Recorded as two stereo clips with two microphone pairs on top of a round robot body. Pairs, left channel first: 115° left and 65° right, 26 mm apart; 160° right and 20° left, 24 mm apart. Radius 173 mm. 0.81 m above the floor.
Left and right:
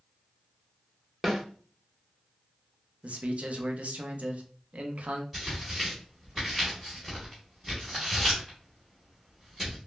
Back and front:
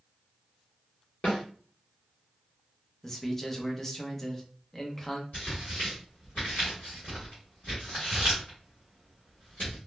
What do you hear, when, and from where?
1.2 s a snare drum: 145° right, 0.8 m
3.0 s a man speaking: 85° right, 0.7 m
5.3 s tearing paper: 145° right, 0.7 m